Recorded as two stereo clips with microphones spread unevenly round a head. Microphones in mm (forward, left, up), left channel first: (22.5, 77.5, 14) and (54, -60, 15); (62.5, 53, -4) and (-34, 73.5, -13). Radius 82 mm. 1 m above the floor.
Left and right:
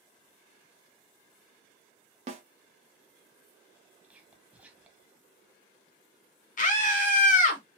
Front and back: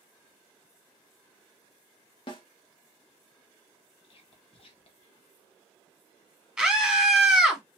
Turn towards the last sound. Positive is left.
turn(degrees=90)